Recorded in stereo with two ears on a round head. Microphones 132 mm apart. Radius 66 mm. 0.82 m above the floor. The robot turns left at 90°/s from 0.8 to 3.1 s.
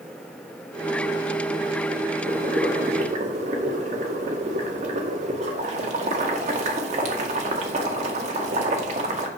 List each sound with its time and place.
2.3 s boiling: 45° right, 2 m; by 9.3 s 125° right, 2 m